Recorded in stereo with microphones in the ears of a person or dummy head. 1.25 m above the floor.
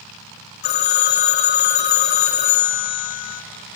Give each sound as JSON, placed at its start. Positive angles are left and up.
{"t": 0.6, "sound": "a phone ringing", "side_deg": 50, "distance_m": 1.6}